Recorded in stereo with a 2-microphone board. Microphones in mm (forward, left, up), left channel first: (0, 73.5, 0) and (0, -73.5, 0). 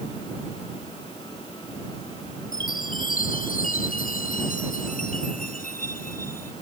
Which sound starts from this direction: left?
A chime, at 2.5 s.